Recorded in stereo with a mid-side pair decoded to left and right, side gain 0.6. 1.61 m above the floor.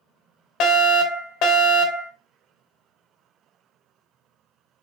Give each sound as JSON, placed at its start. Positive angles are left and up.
{"t": 0.6, "sound": "a fire alarm", "azimuth_deg": 70, "distance_m": 1.4}